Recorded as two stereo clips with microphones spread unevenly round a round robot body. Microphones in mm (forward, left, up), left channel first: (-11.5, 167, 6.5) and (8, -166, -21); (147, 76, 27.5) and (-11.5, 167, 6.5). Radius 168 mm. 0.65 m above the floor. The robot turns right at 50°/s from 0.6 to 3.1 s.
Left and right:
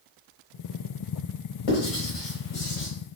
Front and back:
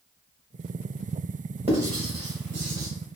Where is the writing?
90° left, 1.1 m; by 2.9 s 150° left, 1.1 m.